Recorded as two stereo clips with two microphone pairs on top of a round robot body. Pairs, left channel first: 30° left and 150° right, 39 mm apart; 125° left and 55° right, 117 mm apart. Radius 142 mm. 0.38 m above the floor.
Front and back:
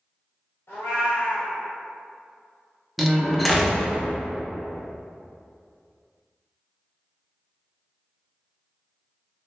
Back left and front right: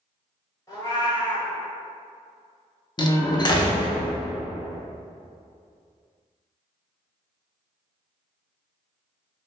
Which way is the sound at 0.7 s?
60° left.